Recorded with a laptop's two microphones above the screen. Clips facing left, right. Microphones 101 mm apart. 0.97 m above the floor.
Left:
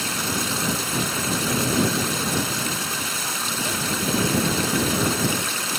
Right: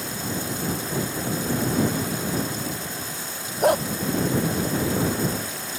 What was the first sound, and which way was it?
Running water, 75° left (ahead or behind).